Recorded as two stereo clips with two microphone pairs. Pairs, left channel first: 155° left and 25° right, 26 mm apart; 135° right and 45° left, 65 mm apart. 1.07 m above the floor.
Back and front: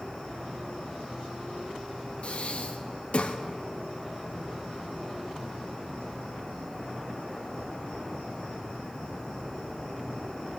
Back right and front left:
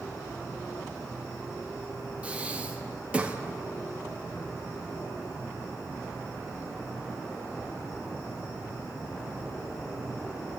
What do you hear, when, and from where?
0.0 s an insect: 165° right, 4.5 m
2.2 s breathing: 115° left, 0.6 m